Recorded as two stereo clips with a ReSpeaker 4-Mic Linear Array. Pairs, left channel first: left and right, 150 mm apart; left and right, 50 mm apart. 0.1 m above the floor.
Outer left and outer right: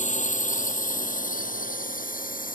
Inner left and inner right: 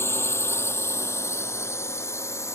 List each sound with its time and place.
0.0 s a drone: 60° left (ahead or behind); by 2.6 s 75° left (ahead or behind)